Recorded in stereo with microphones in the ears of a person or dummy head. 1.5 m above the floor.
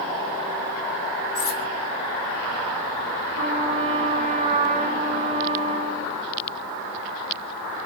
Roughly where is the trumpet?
Right.